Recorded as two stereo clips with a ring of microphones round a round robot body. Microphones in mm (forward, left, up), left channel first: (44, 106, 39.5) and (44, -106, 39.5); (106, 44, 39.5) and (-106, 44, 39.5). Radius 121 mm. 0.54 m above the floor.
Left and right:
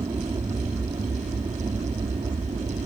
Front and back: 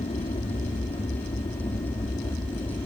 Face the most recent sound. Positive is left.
turn(degrees=-50)